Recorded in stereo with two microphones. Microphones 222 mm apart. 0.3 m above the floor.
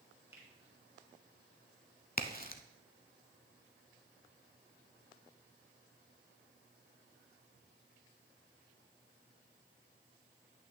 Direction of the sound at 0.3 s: 10° right (ahead or behind).